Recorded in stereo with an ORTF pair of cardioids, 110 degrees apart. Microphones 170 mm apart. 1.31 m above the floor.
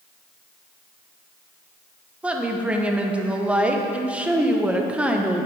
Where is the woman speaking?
10° right, 0.9 m.